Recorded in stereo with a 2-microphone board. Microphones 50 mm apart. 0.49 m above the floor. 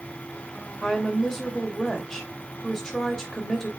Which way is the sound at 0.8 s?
10° left (ahead or behind).